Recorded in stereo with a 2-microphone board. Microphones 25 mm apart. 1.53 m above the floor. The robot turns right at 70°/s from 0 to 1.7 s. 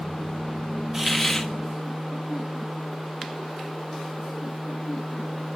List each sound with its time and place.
0.9 s a hiss: 15° right, 1.3 m; by 1.5 s 25° left, 1.3 m